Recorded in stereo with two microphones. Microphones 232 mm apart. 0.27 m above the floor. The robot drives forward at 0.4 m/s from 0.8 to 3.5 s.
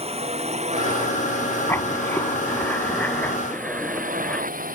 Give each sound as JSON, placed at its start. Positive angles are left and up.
{"t": 0.0, "sound": "a drone", "side_deg": -25}
{"t": 1.7, "sound": "writing", "side_deg": 10}